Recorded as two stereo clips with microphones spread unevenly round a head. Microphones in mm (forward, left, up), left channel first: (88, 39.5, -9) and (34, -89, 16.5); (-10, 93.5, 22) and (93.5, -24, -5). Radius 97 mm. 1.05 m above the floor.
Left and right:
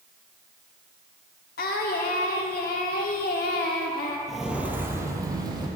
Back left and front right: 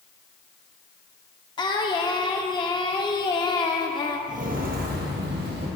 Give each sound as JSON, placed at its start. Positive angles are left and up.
{"t": 1.6, "sound": "singing", "azimuth_deg": 80, "distance_m": 0.9}
{"t": 4.3, "sound": "footsteps", "azimuth_deg": -30, "distance_m": 1.4}